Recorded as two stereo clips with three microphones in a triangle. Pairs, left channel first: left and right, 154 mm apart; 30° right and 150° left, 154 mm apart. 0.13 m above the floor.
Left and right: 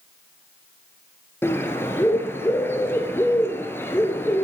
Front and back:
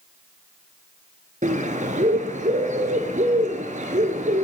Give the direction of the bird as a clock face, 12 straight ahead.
7 o'clock.